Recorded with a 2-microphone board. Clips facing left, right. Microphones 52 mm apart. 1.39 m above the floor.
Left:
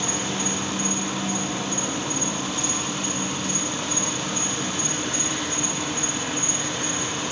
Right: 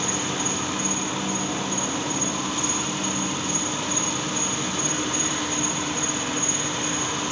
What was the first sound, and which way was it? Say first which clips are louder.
An insect: even; 25° right (ahead or behind).